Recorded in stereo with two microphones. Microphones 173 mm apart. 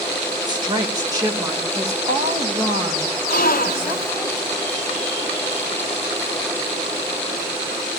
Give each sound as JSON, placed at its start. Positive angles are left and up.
{"t": 0.5, "sound": "a woman speaking", "side_deg": -25, "distance_m": 1.4}
{"t": 3.3, "sound": "a gasp", "side_deg": 60, "distance_m": 0.5}